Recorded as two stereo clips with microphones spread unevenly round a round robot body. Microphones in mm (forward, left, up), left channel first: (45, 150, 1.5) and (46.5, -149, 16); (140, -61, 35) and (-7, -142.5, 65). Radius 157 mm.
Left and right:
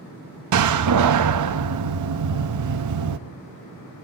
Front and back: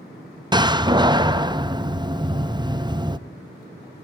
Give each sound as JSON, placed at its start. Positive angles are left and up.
{"t": 0.5, "sound": "a door slam", "azimuth_deg": -80, "distance_m": 0.8}